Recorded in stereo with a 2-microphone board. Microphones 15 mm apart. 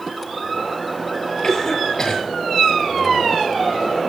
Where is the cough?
30° left (ahead or behind), 6.5 m.